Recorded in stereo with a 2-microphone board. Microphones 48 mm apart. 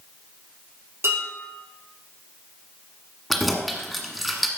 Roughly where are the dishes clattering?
Right.